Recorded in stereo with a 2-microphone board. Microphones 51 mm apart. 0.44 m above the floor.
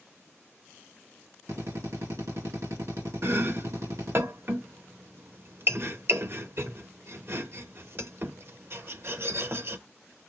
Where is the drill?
75° right (ahead or behind), 3.5 m.